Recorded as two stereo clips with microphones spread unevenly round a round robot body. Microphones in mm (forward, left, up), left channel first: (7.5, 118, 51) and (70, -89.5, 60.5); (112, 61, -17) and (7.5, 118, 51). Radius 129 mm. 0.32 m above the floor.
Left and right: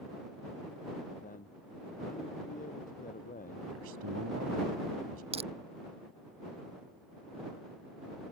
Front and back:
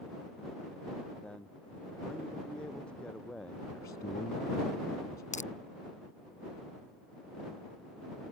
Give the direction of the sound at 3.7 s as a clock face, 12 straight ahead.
3 o'clock.